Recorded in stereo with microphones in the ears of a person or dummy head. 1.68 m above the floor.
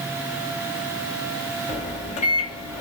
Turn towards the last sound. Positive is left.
turn(degrees=40)  # may be behind; listen again after turning